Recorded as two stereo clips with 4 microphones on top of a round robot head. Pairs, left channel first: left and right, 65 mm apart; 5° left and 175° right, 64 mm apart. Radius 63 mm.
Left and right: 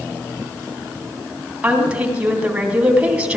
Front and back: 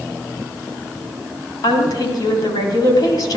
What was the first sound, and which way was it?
A woman speaking, 20° right.